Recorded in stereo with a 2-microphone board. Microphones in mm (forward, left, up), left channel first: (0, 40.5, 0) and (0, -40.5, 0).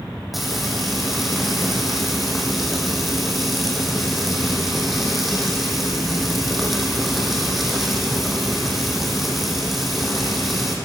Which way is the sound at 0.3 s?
Centre (ahead or behind).